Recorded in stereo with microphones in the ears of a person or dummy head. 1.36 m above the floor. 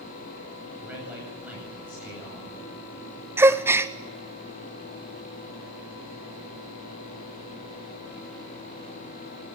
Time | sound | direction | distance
0.8 | a man speaking | 5° right (ahead or behind) | 10 m
3.4 | a gasp | 5° right (ahead or behind) | 0.5 m